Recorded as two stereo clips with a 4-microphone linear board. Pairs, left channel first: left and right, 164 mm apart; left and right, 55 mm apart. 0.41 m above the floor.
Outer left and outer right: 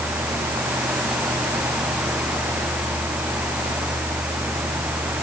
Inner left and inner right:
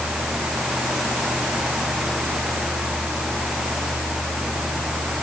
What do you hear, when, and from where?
Only background noise.